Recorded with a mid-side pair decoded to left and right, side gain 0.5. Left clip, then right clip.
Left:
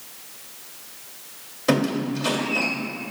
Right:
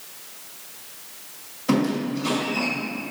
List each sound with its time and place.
1.7 s a squeak: 70° left, 1.8 m